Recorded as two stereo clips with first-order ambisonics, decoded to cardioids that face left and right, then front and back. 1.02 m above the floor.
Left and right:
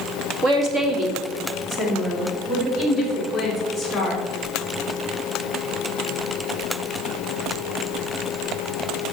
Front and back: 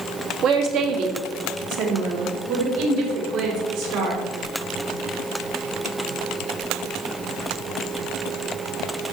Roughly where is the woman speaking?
Behind right.